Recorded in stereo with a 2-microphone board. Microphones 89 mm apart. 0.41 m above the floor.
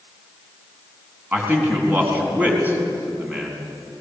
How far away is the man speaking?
About 4.5 m.